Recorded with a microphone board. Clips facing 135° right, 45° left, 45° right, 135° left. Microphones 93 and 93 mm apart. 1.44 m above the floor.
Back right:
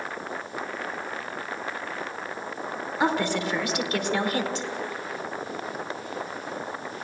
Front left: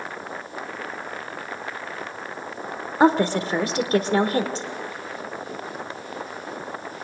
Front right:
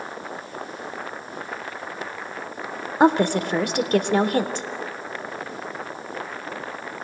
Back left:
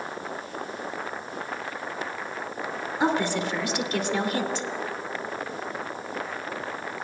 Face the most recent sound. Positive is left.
turn(degrees=-10)